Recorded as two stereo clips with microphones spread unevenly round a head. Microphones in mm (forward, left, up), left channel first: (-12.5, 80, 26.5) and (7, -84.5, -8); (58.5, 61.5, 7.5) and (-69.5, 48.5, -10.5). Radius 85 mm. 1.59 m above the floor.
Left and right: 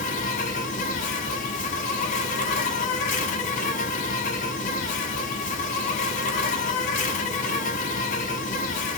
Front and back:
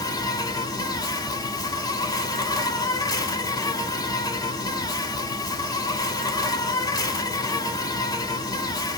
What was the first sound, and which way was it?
An insect, 60° left.